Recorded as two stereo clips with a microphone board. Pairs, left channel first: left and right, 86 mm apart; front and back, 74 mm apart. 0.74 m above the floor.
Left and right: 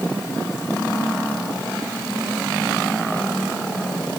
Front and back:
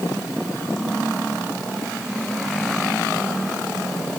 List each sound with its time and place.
Only background noise.